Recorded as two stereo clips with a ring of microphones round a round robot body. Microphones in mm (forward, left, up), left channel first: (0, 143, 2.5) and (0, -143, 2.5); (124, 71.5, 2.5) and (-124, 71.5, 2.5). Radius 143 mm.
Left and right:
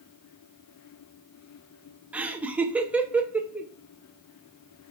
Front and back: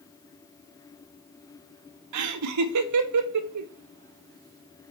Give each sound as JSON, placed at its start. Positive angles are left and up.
{"t": 2.1, "sound": "laughter", "azimuth_deg": -175, "distance_m": 0.5}